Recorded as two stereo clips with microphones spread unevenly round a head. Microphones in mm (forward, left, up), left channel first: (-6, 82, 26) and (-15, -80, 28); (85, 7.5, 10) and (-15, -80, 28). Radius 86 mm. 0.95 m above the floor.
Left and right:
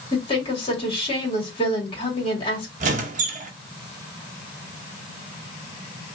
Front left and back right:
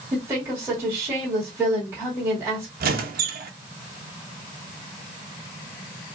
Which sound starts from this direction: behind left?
A woman speaking, at 0.1 s.